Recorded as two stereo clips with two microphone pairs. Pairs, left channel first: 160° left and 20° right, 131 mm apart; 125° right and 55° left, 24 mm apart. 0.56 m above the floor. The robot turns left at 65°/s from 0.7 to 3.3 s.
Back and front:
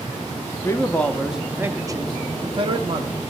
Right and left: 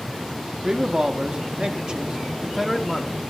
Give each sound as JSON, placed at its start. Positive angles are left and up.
{"t": 0.6, "sound": "a man speaking", "azimuth_deg": 105, "distance_m": 0.8}